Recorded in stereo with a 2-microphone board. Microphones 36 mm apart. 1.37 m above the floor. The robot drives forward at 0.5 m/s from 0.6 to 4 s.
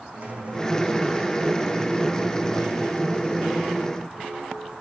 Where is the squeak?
40° right (ahead or behind), 3 m; by 4.7 s 25° right (ahead or behind), 4 m.